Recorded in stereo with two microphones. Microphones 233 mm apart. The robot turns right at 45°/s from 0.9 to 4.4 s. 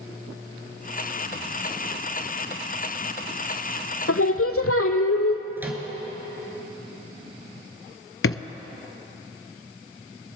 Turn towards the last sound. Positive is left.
turn(degrees=65)  # may be behind; listen again after turning